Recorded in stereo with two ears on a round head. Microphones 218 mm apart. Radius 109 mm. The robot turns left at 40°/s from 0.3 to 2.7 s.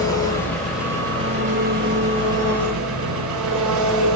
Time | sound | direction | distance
0.0 | an engine running | 15° left | 5 m